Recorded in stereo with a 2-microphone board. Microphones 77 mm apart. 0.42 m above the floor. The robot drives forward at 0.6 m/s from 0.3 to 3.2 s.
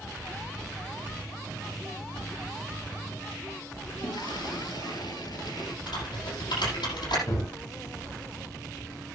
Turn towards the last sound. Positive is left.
turn(degrees=55)  # may be behind; listen again after turning